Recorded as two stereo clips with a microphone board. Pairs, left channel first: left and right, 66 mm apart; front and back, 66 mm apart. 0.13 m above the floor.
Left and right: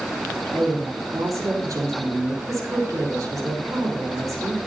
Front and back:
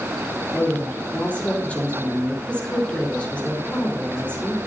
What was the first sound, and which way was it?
A woman speaking, 70° right.